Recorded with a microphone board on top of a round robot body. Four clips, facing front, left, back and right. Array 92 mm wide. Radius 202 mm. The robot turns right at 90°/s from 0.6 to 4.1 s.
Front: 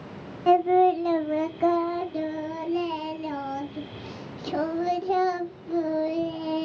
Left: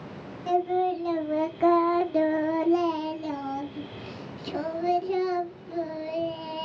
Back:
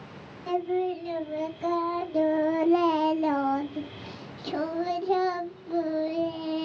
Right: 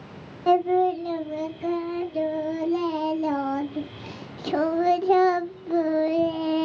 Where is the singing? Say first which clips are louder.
Right 5 dB, front 9 dB; 35° right, 0.8 m; by 6.6 s 80° right, 0.8 m.